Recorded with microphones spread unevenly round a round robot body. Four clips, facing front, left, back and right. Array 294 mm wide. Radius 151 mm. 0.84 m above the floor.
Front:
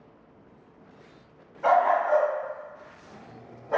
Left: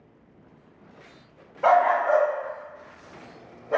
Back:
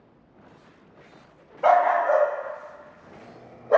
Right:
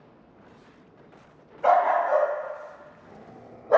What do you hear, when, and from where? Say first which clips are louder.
1.6 s a dog barking: left 1 dB, back 3 dB; 145° left, 1.3 m; by 3.8 s 130° right, 0.8 m